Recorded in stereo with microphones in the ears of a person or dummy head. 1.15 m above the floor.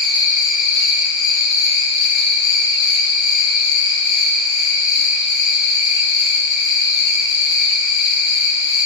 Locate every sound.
0.0 s an insect: 70° left (ahead or behind), 1.7 m